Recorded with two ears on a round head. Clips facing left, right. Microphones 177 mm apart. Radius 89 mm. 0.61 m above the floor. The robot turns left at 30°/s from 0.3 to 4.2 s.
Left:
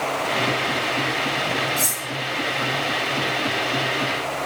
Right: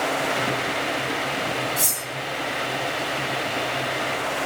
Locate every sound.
1.8 s cutlery clinking: 10° right (ahead or behind), 3 m; by 2.0 s 20° right (ahead or behind), 3 m